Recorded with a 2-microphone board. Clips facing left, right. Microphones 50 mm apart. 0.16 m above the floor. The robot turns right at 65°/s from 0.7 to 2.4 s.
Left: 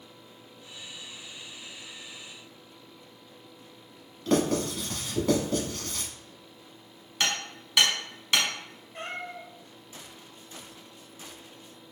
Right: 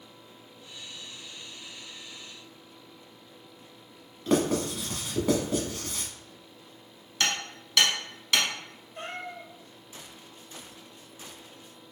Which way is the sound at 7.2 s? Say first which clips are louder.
Even; 10° left (ahead or behind).